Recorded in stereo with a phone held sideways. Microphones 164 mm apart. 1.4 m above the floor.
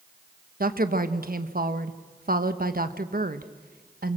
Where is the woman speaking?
70° right (ahead or behind), 1.2 m.